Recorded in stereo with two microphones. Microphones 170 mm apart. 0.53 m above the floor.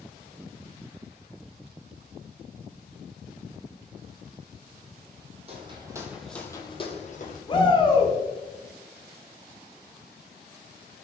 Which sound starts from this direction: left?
A shout, at 7.5 s.